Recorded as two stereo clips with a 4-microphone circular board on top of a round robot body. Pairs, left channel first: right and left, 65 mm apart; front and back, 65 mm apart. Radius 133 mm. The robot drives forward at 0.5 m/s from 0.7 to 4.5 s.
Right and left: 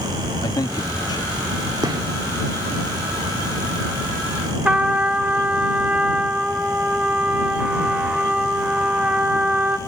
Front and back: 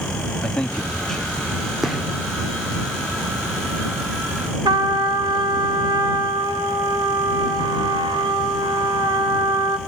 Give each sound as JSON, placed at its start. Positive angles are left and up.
{"t": 0.4, "sound": "a man speaking", "azimuth_deg": -75, "distance_m": 1.8}
{"t": 1.8, "sound": "a gunshot", "azimuth_deg": 95, "distance_m": 3.0}
{"t": 4.7, "sound": "a trumpet", "azimuth_deg": 160, "distance_m": 1.6}